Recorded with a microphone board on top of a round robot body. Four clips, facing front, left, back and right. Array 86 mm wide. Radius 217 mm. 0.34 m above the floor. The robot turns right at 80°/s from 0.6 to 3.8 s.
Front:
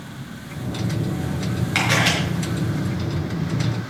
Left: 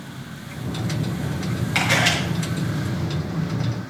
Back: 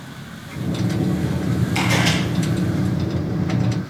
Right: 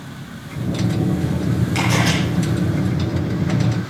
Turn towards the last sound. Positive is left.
turn(degrees=-175)